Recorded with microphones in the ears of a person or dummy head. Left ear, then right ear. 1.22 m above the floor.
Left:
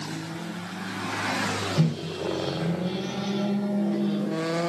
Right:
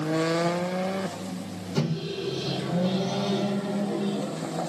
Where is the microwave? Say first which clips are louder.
Left 1 dB; 65° right (ahead or behind), 1.4 m.